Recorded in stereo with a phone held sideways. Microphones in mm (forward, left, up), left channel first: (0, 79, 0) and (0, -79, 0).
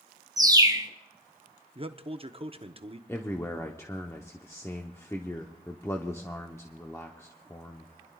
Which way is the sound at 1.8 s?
35° right (ahead or behind).